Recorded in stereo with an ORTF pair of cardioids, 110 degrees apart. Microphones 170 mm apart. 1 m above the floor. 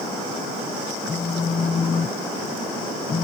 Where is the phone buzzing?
30° left.